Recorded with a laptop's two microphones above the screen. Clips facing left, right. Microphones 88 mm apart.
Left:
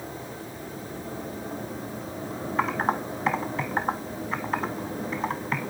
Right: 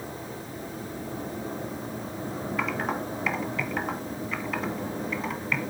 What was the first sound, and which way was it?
Typing on a keyboard, 40° left (ahead or behind).